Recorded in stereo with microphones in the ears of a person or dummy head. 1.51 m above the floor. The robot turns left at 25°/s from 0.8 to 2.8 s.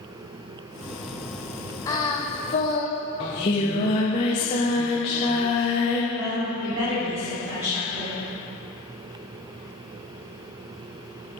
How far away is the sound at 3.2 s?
About 0.5 m.